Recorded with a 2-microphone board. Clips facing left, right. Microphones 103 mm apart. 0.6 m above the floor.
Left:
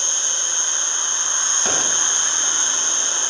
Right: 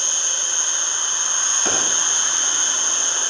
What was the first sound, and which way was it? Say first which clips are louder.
An insect: even; 75° right (ahead or behind).